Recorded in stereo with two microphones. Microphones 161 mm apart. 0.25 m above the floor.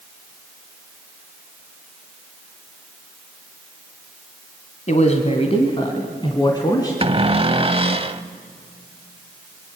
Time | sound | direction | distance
4.9 | a man speaking | 50° left (ahead or behind) | 1.6 m
7.0 | a cupboard door | 35° right (ahead or behind) | 0.6 m